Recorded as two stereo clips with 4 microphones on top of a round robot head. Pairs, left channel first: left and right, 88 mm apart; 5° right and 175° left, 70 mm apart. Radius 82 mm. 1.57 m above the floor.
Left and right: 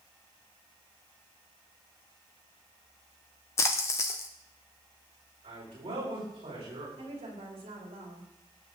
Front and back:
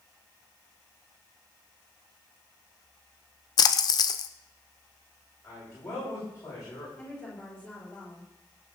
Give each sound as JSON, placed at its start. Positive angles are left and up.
{"t": 3.6, "sound": "a splash", "azimuth_deg": 25, "distance_m": 0.7}
{"t": 5.4, "sound": "a man speaking", "azimuth_deg": -60, "distance_m": 8.0}
{"t": 7.0, "sound": "a woman speaking", "azimuth_deg": -75, "distance_m": 4.5}